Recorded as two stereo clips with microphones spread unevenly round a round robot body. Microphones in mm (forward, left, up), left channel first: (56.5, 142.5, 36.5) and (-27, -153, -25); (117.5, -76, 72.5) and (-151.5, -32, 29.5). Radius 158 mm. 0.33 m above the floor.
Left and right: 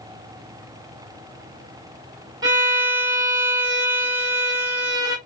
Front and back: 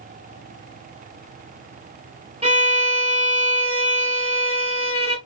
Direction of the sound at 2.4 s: 155° right.